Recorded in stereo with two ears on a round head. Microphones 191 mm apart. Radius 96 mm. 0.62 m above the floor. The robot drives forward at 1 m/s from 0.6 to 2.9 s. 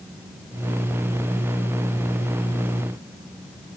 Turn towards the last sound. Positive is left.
No sound to turn to.